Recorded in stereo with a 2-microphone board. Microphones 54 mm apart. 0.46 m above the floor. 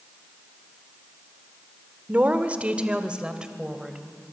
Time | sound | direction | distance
2.1 | a woman speaking | 30° right (ahead or behind) | 1.1 m